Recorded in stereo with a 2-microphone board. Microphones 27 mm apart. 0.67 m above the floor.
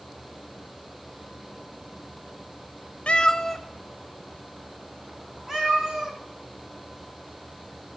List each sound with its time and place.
3.1 s a cat meowing: 45° left (ahead or behind), 0.5 m; by 6.2 s 25° right (ahead or behind), 3 m